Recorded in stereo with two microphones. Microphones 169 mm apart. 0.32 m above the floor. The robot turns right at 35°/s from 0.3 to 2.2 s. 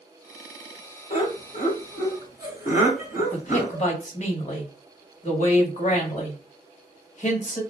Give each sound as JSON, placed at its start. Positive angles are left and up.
{"t": 1.1, "sound": "laughter", "side_deg": 50, "distance_m": 1.8}
{"t": 3.3, "sound": "a man speaking", "side_deg": 45, "distance_m": 1.2}